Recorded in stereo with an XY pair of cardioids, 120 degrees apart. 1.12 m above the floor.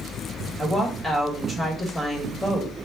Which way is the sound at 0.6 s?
5° left.